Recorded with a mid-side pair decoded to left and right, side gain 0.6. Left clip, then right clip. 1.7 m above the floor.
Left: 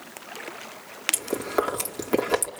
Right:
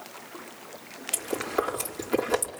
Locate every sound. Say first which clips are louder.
1.1 s chewing: even; 30° left, 4 m